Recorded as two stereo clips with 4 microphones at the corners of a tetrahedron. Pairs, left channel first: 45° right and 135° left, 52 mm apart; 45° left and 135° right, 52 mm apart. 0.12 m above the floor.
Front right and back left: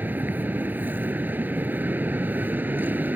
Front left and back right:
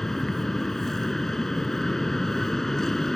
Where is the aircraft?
120° left.